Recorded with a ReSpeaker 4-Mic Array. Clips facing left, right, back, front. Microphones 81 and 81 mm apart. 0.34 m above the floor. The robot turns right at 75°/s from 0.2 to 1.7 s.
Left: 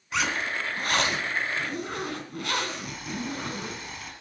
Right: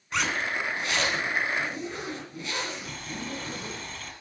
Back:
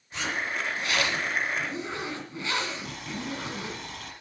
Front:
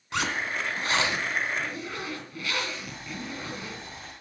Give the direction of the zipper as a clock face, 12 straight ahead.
12 o'clock.